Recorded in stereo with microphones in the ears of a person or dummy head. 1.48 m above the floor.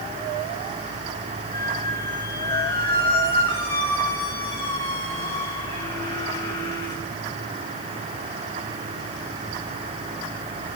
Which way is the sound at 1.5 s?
20° left (ahead or behind).